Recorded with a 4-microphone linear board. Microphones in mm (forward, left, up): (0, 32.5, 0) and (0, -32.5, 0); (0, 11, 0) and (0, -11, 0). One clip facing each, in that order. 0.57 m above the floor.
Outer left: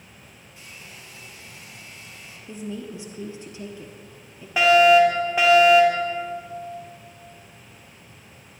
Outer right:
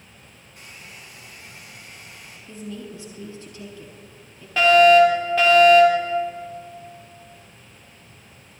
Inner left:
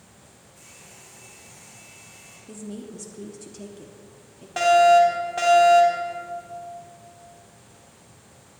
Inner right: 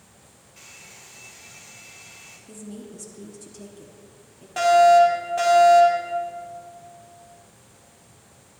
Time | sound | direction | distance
0.6 | a hair dryer | 55° right (ahead or behind) | 3 m
2.5 | a woman speaking | 20° left (ahead or behind) | 0.9 m
4.6 | a fire alarm | 15° left (ahead or behind) | 3 m